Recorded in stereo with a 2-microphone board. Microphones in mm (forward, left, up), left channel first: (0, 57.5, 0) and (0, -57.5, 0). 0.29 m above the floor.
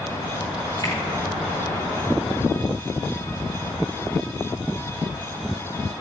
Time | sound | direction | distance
0.8 | a finger snap | 40° left (ahead or behind) | 3.5 m